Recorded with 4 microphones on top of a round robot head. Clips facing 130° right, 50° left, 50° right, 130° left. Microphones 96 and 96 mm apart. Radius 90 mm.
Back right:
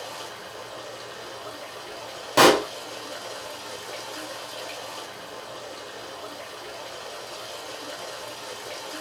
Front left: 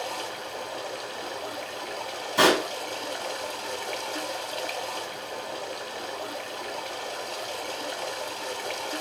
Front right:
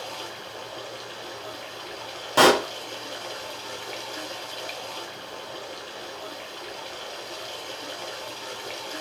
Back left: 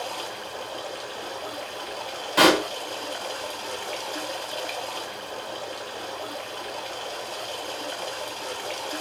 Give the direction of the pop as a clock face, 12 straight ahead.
4 o'clock.